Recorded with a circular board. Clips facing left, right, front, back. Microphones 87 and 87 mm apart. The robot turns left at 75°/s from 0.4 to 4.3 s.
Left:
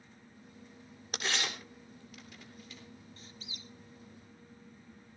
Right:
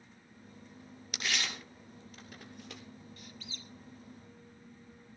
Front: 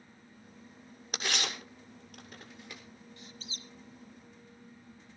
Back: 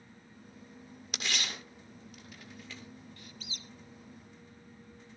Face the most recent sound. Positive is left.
turn(degrees=-30)